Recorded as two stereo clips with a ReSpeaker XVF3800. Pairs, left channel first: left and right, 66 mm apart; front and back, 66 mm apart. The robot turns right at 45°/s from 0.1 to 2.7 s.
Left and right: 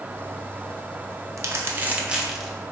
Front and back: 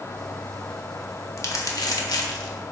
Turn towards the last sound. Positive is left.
turn(degrees=15)